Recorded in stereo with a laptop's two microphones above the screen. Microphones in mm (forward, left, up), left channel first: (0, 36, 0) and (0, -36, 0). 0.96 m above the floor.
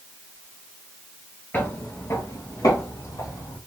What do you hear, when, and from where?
1.5 s footsteps: 20° left (ahead or behind), 1.0 m; by 3.6 s 45° left (ahead or behind), 2.5 m